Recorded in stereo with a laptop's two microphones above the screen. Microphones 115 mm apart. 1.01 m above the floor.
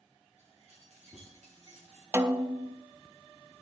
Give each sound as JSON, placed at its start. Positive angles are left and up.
{"t": 0.4, "sound": "keys jangling", "side_deg": -85, "distance_m": 7.5}
{"t": 2.1, "sound": "a snare drum", "side_deg": -20, "distance_m": 0.5}